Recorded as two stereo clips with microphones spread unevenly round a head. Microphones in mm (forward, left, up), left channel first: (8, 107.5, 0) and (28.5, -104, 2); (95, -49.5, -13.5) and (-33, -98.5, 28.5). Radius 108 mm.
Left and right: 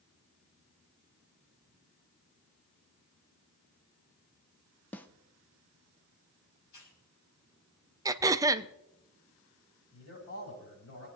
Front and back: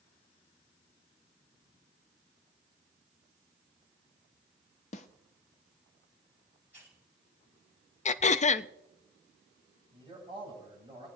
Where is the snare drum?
20° left, 0.8 m.